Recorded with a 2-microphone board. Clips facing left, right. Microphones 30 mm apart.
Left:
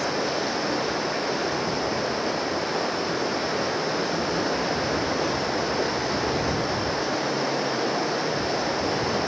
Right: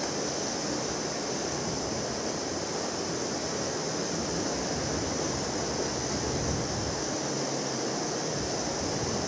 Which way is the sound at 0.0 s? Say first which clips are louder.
Left 7 dB; 50° left (ahead or behind).